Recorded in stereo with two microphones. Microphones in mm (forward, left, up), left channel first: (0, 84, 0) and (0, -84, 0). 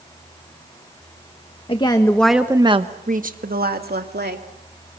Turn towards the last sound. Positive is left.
turn(degrees=-75)  # may be behind; listen again after turning